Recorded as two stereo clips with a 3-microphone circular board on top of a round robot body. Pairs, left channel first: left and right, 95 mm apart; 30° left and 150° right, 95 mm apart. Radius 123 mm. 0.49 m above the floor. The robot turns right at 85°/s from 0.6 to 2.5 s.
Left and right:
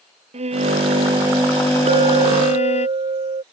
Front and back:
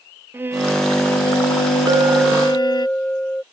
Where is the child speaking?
I don't hear a child speaking.